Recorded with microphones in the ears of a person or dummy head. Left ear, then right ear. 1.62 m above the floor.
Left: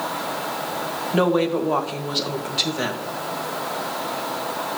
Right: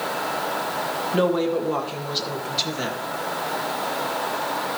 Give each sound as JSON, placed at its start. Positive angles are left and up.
{"t": 1.1, "sound": "a woman speaking", "side_deg": 20, "distance_m": 1.6}